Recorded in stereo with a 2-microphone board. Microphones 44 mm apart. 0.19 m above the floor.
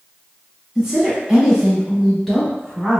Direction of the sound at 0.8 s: 10° right (ahead or behind).